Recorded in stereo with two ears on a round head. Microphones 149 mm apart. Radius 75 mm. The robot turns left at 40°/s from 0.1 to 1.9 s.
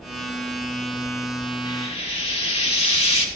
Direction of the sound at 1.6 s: 30° left (ahead or behind).